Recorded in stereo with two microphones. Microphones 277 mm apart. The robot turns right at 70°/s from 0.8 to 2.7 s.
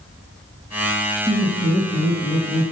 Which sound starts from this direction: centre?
Laughter, at 1.3 s.